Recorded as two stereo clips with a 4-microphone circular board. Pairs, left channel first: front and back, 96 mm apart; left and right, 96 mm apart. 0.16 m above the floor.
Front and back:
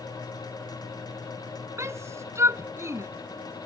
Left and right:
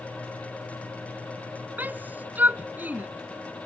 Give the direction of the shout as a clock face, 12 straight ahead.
5 o'clock.